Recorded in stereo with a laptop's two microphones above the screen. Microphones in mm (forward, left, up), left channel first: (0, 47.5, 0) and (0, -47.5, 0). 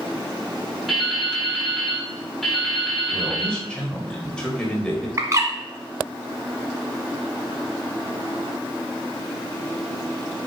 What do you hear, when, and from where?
0.9 s dripping: centre (ahead or behind), 4 m
3.1 s a man speaking: 10° left (ahead or behind), 4 m
5.2 s a bird: 35° right (ahead or behind), 1.3 m